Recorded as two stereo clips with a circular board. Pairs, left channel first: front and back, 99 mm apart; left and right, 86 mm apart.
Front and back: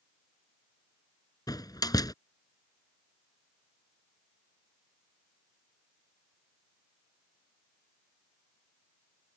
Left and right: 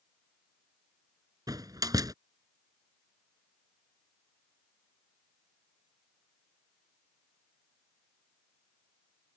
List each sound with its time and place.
1.5 s a door slam: 50° right